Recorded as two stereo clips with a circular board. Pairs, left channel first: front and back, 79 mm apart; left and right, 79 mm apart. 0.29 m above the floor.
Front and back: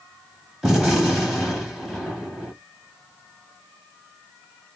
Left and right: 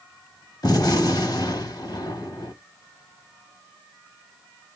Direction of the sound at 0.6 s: 95° left.